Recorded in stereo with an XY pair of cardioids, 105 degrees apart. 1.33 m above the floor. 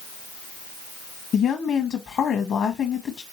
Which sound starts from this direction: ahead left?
A woman speaking, at 1.3 s.